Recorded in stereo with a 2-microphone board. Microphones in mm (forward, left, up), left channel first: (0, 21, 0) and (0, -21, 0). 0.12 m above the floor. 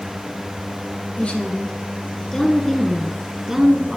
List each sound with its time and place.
1.2 s a woman speaking: 35° left (ahead or behind), 2.0 m; by 4.0 s 20° right (ahead or behind), 1.5 m